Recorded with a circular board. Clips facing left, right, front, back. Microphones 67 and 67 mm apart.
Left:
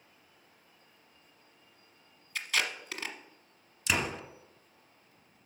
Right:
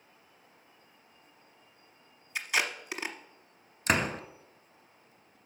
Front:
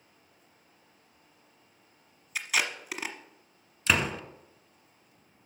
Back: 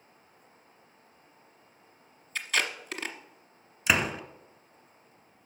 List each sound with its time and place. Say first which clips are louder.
2.4 s tape being pulled: right 2 dB, even; 60° right, 1.1 m
3.9 s a door slam: right 4 dB, back 1 dB; 100° right, 1.1 m